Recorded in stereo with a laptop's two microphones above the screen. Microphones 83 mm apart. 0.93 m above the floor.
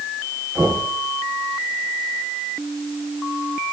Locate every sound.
0.6 s knocking: 40° right (ahead or behind), 10 m